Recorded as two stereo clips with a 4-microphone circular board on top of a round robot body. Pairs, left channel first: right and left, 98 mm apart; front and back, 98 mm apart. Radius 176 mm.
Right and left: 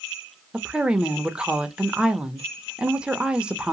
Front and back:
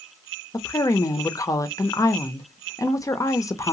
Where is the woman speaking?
15° left, 0.7 m.